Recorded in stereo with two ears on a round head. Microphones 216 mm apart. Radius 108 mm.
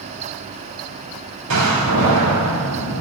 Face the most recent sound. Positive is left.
turn(degrees=-85)